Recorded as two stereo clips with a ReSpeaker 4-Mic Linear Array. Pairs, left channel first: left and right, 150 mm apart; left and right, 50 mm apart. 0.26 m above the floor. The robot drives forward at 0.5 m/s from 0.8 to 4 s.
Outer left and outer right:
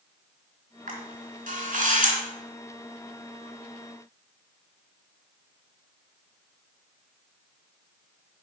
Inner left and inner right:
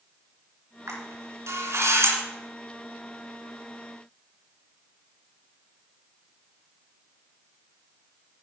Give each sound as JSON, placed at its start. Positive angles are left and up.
{"t": 0.9, "sound": "a camera shutter", "side_deg": -65, "distance_m": 3.5}